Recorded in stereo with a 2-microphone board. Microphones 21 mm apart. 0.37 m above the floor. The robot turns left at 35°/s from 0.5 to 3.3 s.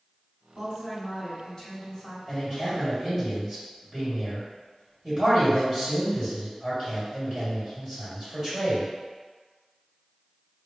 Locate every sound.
0.6 s a woman speaking: 95° left, 1.6 m; by 2.2 s 40° left, 1.6 m
2.3 s a man speaking: straight ahead, 2.0 m; by 8.9 s 35° right, 2.0 m